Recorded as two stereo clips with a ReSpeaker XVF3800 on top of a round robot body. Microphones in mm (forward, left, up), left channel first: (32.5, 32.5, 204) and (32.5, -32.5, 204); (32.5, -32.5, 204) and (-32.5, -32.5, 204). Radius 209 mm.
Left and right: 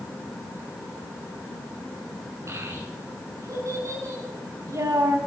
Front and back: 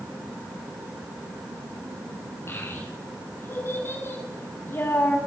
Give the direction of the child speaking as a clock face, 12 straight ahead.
2 o'clock.